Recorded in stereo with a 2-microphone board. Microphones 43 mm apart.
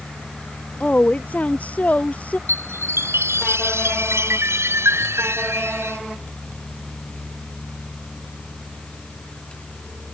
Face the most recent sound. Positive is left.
turn(degrees=-80)